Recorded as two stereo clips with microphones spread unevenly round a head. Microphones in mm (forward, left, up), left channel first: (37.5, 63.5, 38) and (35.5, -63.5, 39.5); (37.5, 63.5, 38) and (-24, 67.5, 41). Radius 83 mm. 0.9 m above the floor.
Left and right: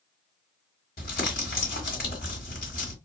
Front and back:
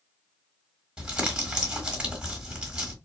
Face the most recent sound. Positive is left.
turn(degrees=100)